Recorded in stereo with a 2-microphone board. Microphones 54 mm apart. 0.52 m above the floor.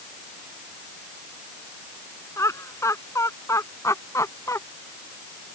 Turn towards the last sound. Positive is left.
turn(degrees=70)  # may be behind; listen again after turning